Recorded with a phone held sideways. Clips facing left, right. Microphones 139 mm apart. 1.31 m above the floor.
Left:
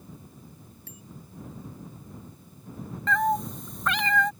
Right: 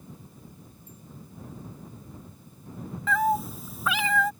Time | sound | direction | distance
0.9 | a bicycle bell | 85° left | ?
3.1 | a cat meowing | 5° right (ahead or behind) | ?